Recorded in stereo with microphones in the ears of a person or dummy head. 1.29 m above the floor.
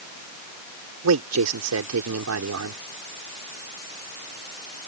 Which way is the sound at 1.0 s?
75° right (ahead or behind).